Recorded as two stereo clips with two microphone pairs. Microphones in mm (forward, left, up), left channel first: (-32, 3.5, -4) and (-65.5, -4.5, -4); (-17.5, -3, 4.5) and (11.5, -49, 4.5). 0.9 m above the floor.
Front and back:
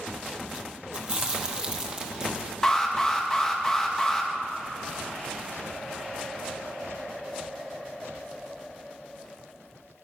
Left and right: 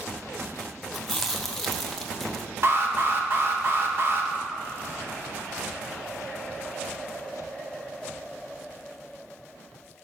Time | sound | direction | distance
0.9 | chewing | 155° right | 0.7 m
2.6 | an alarm | 60° right | 0.9 m